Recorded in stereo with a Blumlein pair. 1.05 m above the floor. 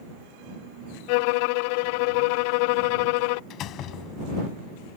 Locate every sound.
1.1 s a violin: 45° left
3.5 s a door slam: 35° left